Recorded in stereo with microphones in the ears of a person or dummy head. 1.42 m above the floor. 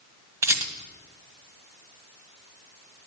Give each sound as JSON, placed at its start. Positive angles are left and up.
{"t": 0.4, "sound": "a rattle", "side_deg": -15, "distance_m": 1.7}